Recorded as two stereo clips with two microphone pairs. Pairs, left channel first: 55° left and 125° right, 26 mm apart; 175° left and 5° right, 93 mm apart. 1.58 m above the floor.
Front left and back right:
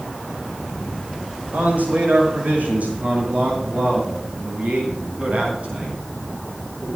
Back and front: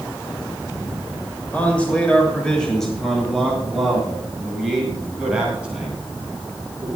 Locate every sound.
1.5 s a man speaking: 115° right, 6.5 m; by 7.0 s 80° right, 11.5 m